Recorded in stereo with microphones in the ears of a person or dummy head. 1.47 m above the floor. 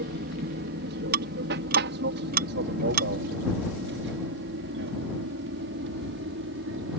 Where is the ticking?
55° right (ahead or behind).